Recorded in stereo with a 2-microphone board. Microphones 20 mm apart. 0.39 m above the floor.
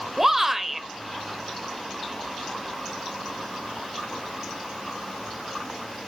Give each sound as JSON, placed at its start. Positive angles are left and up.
{"t": 0.2, "sound": "a shout", "side_deg": -15, "distance_m": 1.1}